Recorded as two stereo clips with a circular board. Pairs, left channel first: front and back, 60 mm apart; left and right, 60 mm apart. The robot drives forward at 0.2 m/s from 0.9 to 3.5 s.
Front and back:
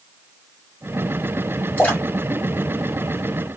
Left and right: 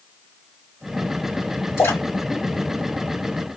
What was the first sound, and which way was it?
A splash, 65° left.